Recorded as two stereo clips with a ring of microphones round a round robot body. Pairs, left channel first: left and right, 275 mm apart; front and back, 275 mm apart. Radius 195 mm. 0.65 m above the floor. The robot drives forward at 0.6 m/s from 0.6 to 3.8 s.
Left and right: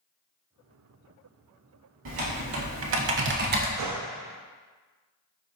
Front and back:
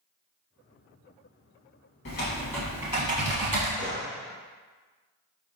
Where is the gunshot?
120° right, 0.7 m.